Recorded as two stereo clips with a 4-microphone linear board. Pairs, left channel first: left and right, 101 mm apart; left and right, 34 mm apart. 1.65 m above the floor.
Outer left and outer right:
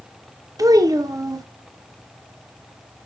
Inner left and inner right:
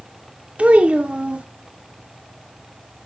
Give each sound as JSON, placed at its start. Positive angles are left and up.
{"t": 0.6, "sound": "a child speaking", "side_deg": -35, "distance_m": 0.6}